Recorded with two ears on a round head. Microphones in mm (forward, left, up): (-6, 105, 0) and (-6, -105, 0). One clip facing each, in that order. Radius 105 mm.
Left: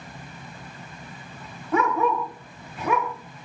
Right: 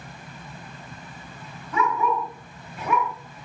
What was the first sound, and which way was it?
A dog barking, 50° left (ahead or behind).